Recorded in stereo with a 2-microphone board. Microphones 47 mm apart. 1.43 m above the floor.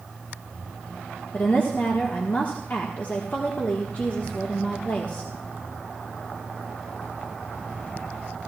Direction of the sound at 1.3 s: 40° left (ahead or behind).